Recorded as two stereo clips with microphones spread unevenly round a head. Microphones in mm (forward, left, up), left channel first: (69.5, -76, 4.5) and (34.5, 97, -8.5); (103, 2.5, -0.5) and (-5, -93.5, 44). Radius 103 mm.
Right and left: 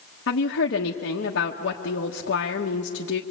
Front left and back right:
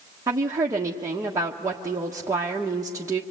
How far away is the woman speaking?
About 1.5 m.